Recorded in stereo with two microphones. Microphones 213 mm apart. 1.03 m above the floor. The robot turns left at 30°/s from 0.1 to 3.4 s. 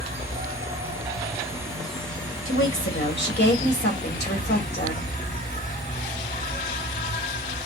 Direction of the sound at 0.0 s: 125° right.